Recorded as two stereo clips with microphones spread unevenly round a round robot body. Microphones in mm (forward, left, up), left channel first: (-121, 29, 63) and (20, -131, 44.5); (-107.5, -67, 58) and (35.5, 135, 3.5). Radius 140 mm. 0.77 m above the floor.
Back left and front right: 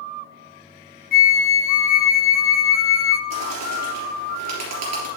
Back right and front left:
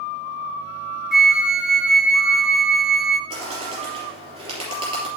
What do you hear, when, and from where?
1.1 s a flute: 125° left, 1.1 m
3.3 s a bird: 20° right, 3 m